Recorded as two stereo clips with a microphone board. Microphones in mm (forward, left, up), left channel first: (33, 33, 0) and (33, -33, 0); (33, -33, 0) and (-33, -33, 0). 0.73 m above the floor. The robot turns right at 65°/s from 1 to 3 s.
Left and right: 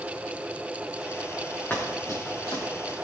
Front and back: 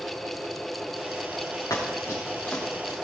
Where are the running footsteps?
25° left, 4 m; by 2.9 s 85° left, 3 m.